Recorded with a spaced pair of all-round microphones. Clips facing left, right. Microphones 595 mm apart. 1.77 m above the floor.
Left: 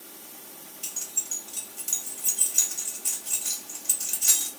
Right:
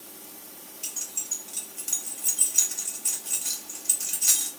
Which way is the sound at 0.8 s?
Centre (ahead or behind).